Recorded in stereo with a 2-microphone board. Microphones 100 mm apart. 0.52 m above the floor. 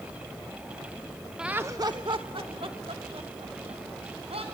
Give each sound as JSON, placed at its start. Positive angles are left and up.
{"t": 1.4, "sound": "laughter", "side_deg": -5, "distance_m": 0.6}